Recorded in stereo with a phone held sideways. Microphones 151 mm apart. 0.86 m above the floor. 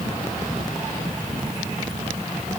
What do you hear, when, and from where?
Only background noise.